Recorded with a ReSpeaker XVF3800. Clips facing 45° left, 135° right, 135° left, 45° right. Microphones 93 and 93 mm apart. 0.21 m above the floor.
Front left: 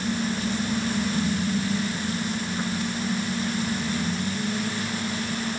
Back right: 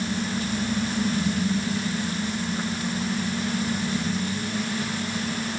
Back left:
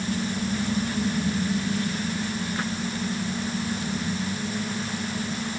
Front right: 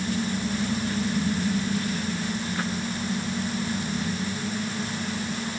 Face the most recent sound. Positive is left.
No sound to turn to.